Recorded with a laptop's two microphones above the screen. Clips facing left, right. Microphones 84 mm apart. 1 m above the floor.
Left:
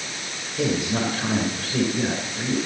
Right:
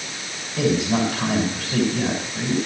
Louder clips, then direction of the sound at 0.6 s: Right 4 dB; 80° right.